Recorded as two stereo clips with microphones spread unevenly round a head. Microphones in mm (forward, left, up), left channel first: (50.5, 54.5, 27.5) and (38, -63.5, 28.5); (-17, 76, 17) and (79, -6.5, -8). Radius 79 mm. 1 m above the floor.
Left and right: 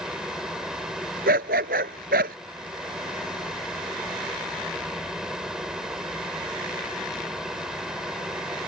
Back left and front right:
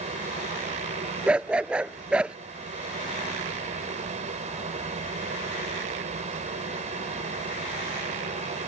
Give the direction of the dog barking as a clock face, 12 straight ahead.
4 o'clock.